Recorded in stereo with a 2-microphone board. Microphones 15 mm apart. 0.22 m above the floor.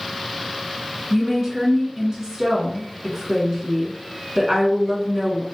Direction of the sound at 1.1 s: 55° right (ahead or behind).